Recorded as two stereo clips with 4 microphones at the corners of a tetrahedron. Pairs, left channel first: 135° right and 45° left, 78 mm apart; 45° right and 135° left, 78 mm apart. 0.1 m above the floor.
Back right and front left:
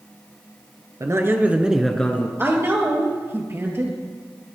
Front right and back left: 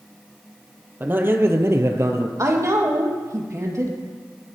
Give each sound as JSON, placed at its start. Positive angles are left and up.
{"t": 1.0, "sound": "a man speaking", "azimuth_deg": 80, "distance_m": 1.8}
{"t": 2.4, "sound": "a woman speaking", "azimuth_deg": 95, "distance_m": 3.0}